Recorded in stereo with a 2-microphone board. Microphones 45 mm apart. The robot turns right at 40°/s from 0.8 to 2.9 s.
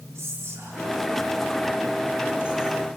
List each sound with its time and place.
0.1 s whispering: 85° right, 4 m; by 2.9 s 5° right (ahead or behind), 4 m